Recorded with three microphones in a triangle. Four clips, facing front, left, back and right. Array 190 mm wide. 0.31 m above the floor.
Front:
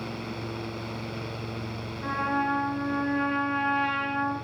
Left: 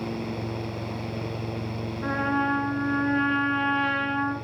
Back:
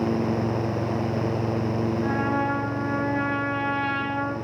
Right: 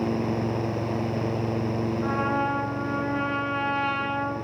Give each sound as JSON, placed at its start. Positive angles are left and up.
{"t": 2.0, "sound": "a trumpet", "azimuth_deg": 90, "distance_m": 4.0}